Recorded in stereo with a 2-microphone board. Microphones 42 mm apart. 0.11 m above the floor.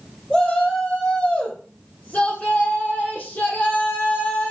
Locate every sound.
0.3 s a shout: 25° left (ahead or behind), 3.5 m; by 4.5 s 60° left (ahead or behind), 4 m